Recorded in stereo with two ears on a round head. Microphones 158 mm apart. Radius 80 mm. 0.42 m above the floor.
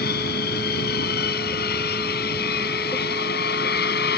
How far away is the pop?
I don't hear a pop.